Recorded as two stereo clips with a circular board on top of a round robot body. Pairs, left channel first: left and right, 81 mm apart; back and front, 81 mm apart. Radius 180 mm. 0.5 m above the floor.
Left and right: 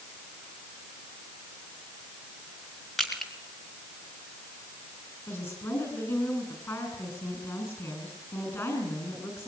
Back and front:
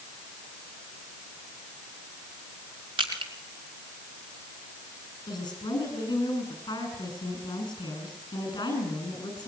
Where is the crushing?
5° left, 3 m.